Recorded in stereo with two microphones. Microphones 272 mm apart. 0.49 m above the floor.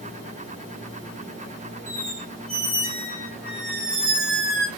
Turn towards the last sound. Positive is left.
turn(degrees=-50)  # may be behind; listen again after turning